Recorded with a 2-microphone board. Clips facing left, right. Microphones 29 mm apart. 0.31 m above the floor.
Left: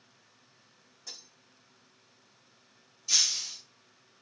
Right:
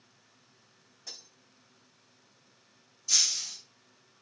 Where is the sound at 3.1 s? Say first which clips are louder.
Left 1 dB; 20° left (ahead or behind), 4 m.